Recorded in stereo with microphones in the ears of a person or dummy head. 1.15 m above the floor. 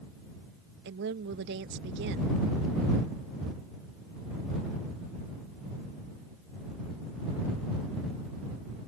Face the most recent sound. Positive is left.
turn(degrees=-65)  # may be behind; listen again after turning